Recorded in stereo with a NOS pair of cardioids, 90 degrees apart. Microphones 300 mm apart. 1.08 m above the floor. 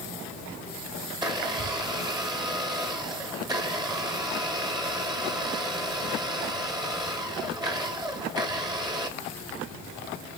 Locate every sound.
1.1 s a blender: 15° right, 1.9 m